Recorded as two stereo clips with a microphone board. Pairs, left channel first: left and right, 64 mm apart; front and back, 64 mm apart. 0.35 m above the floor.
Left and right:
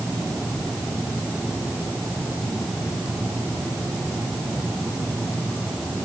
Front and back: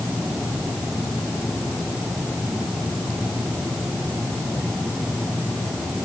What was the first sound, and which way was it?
Only background noise.